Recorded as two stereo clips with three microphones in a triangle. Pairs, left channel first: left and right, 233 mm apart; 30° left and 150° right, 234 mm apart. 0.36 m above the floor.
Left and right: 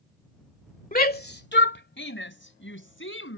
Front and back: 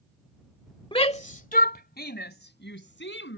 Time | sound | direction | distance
0.9 | a shout | 80° left | ?